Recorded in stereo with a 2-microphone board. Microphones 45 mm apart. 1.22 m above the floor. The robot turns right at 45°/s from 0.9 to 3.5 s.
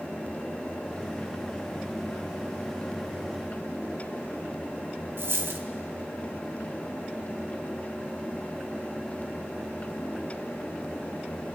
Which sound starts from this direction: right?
A dropped coin, at 5.2 s.